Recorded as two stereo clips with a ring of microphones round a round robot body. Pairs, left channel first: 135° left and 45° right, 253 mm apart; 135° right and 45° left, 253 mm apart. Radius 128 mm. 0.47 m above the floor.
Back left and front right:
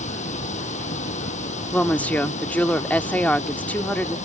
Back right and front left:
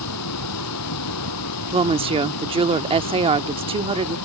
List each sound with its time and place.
0.0 s running water: 160° right
1.7 s a woman speaking: 60° left